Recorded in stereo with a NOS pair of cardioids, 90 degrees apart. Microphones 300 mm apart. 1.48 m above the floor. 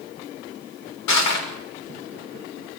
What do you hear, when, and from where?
1.1 s crushing: 65° left, 6 m